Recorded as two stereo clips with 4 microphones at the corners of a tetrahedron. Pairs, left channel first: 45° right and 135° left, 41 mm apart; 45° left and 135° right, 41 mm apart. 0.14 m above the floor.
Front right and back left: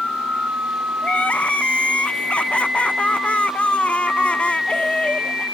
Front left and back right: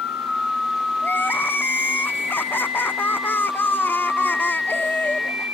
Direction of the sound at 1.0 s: 15° left.